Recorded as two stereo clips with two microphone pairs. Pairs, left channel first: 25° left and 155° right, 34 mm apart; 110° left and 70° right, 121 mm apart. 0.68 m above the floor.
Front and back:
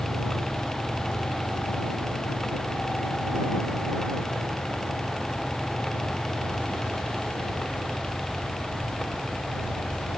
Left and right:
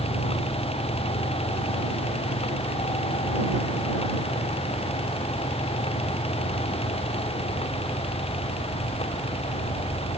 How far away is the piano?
I don't hear a piano.